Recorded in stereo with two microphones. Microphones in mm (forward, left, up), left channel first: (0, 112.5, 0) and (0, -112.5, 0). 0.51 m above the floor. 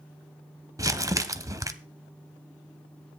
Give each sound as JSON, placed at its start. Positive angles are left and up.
{"t": 0.8, "sound": "crumpling", "side_deg": -15, "distance_m": 0.8}